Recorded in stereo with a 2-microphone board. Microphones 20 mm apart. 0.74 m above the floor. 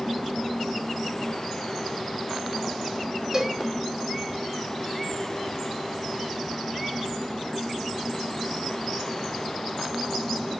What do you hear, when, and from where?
3.3 s a cowbell: 35° right (ahead or behind), 1.4 m